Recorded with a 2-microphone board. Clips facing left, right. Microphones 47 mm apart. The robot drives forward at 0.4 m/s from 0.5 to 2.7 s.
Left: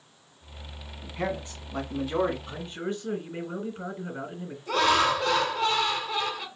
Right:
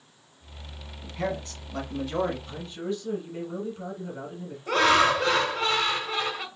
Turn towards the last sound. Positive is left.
turn(degrees=-45)  # may be behind; listen again after turning